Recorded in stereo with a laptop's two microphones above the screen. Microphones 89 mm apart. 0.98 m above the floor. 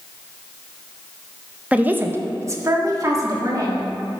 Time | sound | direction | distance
1.7 | a woman speaking | 15° right (ahead or behind) | 0.6 m